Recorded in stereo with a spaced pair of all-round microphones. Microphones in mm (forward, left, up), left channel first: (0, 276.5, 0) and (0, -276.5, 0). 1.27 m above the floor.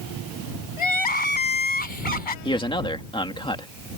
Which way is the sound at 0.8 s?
60° left (ahead or behind).